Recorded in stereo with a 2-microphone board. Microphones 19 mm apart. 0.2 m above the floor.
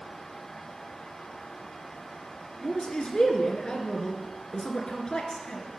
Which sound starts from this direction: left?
A man speaking, at 2.6 s.